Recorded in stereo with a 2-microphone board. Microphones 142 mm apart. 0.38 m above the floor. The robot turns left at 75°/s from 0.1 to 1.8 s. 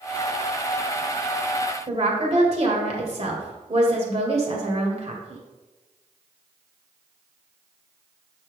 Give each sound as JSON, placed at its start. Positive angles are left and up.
{"t": 1.9, "sound": "a woman speaking", "side_deg": -45, "distance_m": 1.8}